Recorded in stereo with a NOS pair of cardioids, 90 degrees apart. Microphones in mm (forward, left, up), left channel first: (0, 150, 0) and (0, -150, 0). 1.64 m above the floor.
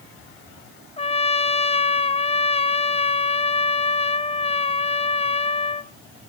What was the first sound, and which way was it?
A trumpet, 20° left.